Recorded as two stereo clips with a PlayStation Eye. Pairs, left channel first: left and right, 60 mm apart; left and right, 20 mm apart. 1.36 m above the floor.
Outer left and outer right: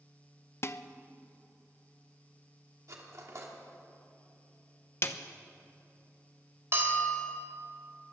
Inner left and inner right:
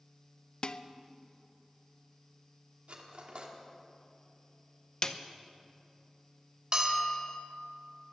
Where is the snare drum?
40° left (ahead or behind), 0.8 m.